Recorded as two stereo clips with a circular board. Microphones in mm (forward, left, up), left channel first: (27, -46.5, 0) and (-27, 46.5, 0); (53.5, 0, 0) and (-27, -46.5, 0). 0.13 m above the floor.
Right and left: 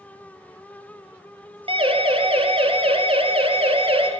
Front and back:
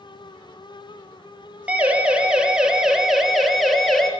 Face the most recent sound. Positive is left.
turn(degrees=115)